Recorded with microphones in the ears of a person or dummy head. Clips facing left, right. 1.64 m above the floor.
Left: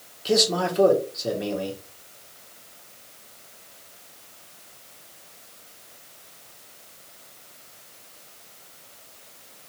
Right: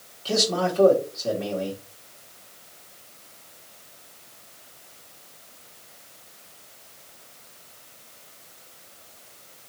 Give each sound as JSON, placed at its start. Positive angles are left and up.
{"t": 0.2, "sound": "a man speaking", "side_deg": 20, "distance_m": 1.2}